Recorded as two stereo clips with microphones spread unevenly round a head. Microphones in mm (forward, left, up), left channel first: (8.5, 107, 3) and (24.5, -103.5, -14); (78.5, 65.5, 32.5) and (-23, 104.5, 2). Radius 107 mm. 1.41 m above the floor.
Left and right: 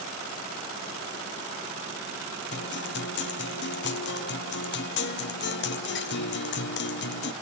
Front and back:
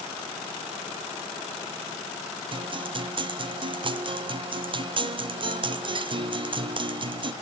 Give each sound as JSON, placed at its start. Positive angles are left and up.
{"t": 2.5, "sound": "a guitar", "azimuth_deg": 135, "distance_m": 0.8}